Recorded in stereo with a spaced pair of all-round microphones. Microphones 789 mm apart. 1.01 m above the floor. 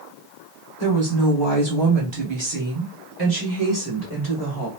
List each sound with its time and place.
0.8 s a woman speaking: 30° right (ahead or behind), 1.4 m; by 4.7 s 15° right (ahead or behind), 1.4 m